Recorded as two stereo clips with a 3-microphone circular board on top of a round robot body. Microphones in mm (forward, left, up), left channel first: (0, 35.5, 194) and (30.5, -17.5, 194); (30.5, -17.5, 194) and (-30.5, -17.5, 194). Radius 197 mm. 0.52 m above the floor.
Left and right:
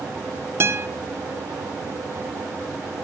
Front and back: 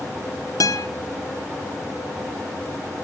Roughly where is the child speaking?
No child speaking in this recording.